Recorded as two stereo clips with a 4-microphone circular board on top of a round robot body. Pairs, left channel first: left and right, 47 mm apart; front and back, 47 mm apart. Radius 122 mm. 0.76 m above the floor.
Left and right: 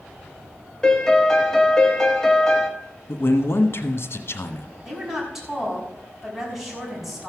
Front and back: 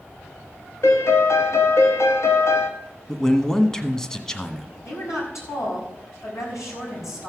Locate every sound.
0.8 s a piano: 15° left, 1.6 m
3.1 s a man speaking: 75° left, 1.5 m
4.8 s a woman speaking: 5° right, 6 m